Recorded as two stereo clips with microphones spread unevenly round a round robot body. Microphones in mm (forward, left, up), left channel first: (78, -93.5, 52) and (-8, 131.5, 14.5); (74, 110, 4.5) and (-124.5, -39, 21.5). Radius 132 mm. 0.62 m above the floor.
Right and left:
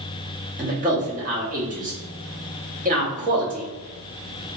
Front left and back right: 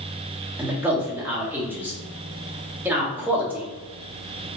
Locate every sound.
0.6 s a man speaking: 130° left, 1.0 m